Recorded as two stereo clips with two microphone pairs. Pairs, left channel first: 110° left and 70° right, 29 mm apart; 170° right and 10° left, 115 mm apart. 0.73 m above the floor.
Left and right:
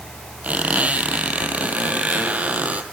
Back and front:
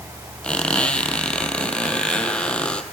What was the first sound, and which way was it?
A squeak, 90° right.